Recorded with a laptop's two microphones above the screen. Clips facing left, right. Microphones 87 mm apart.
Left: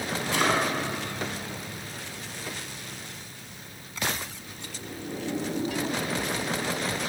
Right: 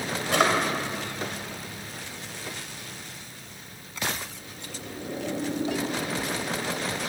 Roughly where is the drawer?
Right.